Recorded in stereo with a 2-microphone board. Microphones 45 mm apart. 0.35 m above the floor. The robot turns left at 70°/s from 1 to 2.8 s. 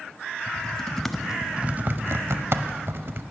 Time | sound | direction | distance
0.5 | typing on a keyboard | 10° left (ahead or behind) | 0.6 m